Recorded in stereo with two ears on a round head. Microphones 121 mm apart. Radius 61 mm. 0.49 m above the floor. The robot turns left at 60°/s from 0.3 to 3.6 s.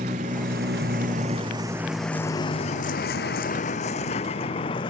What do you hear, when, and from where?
0.0 s a vehicle: 55° right (ahead or behind); by 4.9 s 35° left (ahead or behind)